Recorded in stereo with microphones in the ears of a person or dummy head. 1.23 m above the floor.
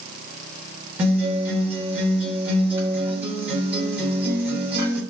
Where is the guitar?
5° right (ahead or behind), 0.8 m.